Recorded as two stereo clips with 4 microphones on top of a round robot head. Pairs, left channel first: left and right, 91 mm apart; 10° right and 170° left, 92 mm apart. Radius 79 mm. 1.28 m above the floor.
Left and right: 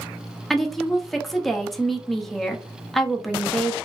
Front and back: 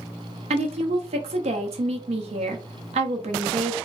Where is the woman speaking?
175° left, 0.7 m.